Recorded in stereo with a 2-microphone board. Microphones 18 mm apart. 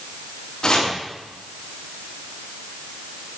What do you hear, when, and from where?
0.6 s chopping: 35° left (ahead or behind), 2.0 m